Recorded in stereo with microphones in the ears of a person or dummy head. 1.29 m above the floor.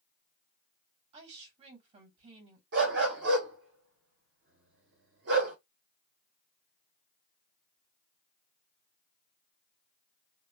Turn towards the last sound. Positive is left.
turn(degrees=-65)  # may be behind; listen again after turning